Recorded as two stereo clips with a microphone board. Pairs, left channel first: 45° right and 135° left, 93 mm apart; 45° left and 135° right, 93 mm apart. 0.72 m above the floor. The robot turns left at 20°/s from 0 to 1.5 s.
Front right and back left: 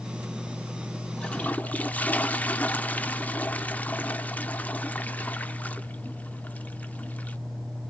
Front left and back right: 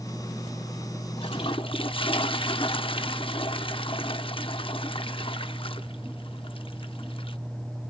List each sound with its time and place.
1.2 s a toilet flushing: 35° left, 0.8 m; by 7.4 s 30° left, 0.8 m